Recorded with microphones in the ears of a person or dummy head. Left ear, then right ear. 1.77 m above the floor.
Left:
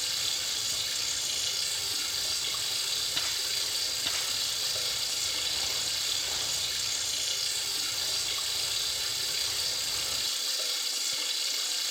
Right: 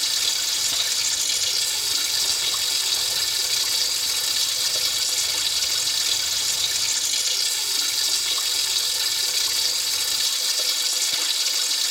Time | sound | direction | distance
0.0 | running water | 75° right (ahead or behind) | 3.5 m